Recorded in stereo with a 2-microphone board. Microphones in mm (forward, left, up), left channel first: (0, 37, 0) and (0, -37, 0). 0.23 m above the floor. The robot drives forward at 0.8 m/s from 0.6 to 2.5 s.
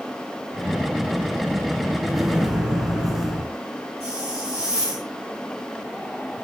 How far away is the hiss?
About 9.5 m.